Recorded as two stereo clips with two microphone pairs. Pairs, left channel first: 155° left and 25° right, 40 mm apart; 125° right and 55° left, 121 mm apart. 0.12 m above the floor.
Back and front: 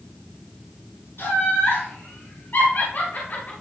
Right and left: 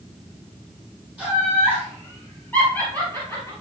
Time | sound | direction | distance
1.2 | laughter | 150° left | 4.5 m